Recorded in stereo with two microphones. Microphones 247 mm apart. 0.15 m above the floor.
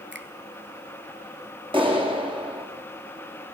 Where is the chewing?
No chewing in this recording.